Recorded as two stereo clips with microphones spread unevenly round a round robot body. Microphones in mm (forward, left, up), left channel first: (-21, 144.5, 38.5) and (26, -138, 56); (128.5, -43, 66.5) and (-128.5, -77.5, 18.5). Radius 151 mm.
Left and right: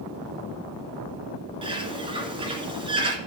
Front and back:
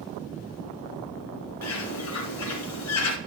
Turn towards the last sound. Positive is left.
turn(degrees=-10)